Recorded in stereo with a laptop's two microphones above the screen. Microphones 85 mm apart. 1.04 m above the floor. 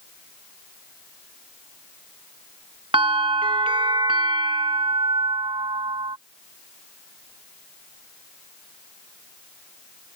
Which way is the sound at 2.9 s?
80° right.